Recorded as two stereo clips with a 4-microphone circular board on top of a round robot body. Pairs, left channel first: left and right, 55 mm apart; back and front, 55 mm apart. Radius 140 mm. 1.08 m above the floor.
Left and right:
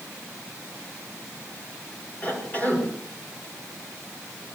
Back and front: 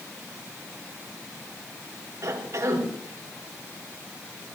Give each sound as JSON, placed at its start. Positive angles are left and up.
{"t": 2.2, "sound": "a cough", "azimuth_deg": 25, "distance_m": 5.0}